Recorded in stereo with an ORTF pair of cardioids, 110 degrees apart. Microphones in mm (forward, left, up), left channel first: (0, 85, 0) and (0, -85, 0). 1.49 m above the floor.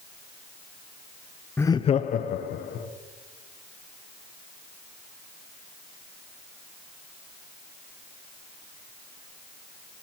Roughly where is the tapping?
No tapping in this recording.